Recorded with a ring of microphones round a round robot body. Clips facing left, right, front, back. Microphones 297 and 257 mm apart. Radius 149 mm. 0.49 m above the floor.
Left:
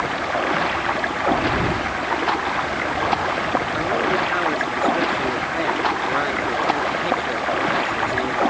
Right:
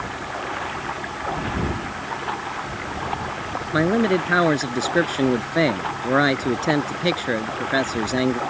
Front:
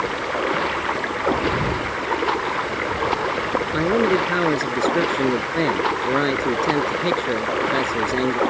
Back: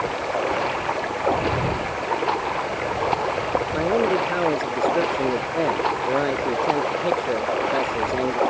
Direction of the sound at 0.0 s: 65° left.